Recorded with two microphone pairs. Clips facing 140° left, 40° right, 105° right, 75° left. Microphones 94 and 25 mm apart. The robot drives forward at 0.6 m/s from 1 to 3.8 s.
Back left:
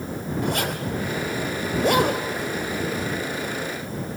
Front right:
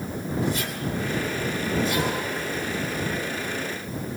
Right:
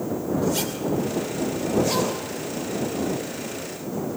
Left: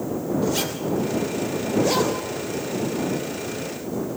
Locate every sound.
0.4 s a zipper: 155° left, 2 m; by 4.2 s 165° left, 3.5 m